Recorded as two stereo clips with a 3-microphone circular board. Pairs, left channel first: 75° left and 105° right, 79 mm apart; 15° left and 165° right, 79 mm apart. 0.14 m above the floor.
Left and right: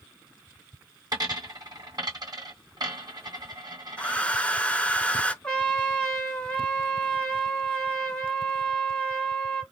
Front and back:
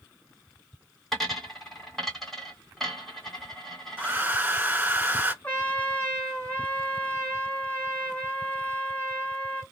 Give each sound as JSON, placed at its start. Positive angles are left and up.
{"t": 1.1, "sound": "a dropped coin", "azimuth_deg": -75, "distance_m": 1.3}
{"t": 4.0, "sound": "a hair dryer", "azimuth_deg": 135, "distance_m": 0.5}
{"t": 5.4, "sound": "a trumpet", "azimuth_deg": 25, "distance_m": 1.2}